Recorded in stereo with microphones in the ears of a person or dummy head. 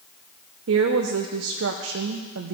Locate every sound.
0.7 s a woman speaking: 75° right (ahead or behind), 0.6 m